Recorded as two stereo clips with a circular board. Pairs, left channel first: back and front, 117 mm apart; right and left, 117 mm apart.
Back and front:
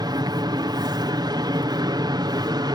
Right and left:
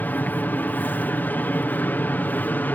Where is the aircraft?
25° right.